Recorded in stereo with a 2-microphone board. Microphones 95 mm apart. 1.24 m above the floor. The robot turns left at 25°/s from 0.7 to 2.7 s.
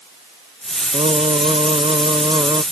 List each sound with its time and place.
0.9 s singing: 95° right; by 2.6 s 135° right